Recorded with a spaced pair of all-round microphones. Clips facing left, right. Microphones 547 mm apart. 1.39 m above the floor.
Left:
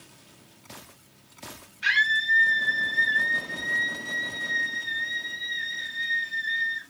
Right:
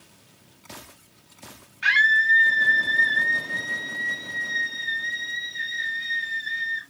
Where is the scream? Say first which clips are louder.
Right 5 dB; 70° right (ahead or behind), 1.2 m; by 6.9 s 85° right, 4 m.